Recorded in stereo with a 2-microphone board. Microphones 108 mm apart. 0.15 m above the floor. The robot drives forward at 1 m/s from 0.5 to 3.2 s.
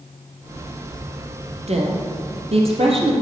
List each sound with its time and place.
1.7 s a woman speaking: 70° right (ahead or behind), 3.5 m; by 3.1 s 55° right (ahead or behind), 4 m